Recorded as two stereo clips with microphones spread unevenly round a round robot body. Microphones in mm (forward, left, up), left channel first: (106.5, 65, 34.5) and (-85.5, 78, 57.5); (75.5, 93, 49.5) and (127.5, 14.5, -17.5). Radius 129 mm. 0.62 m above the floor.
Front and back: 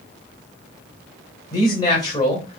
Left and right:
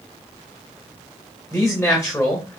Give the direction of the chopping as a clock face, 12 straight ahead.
I don't hear chopping.